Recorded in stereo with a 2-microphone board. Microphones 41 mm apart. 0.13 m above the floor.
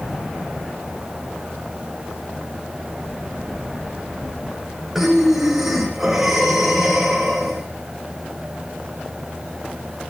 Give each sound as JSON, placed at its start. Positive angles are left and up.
{"t": 5.0, "sound": "breathing", "side_deg": 0, "distance_m": 7.5}